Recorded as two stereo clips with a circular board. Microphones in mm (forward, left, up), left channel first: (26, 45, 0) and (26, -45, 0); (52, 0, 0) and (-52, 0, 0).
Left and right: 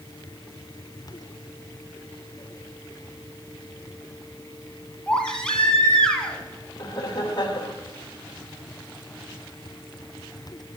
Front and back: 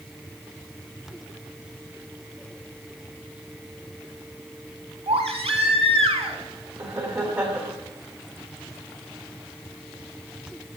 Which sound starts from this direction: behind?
A baby crying, at 5.1 s.